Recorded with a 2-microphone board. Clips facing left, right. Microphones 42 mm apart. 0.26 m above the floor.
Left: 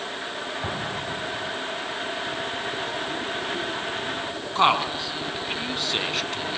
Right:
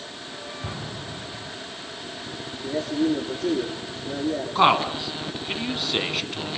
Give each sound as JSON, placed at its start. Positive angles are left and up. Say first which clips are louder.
{"t": 0.6, "sound": "an explosion", "louder": "left 5 dB", "side_deg": 45, "distance_m": 3.0}
{"t": 2.6, "sound": "a man speaking", "louder": "right 5 dB", "side_deg": -70, "distance_m": 7.0}
{"t": 4.5, "sound": "a man speaking", "louder": "right 1 dB", "side_deg": 0, "distance_m": 2.0}